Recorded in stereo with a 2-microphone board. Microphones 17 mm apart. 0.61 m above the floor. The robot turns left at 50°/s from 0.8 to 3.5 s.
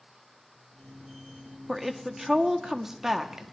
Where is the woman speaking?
10° right (ahead or behind), 0.8 m; by 3.4 s 25° right (ahead or behind), 0.8 m.